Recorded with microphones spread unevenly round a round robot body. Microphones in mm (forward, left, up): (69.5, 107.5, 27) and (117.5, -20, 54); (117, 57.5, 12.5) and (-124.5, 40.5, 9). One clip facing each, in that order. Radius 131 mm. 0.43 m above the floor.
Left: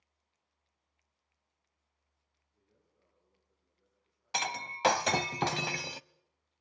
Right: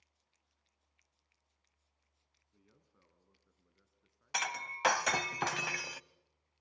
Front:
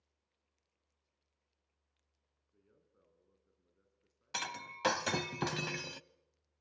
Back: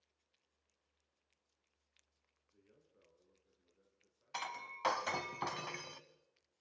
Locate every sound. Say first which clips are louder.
2.5 s a man speaking: right 4 dB, back 2 dB; 80° right, 5 m; by 5.3 s 55° right, 7.5 m
4.3 s breaking glass: left 3 dB, front 3 dB; 45° left, 0.6 m